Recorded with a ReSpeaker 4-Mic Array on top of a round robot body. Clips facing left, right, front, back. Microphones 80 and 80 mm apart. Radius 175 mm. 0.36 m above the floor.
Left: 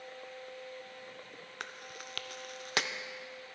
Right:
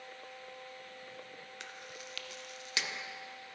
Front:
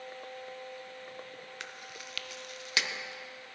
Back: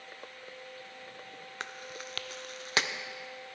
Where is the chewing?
130° left, 0.6 m.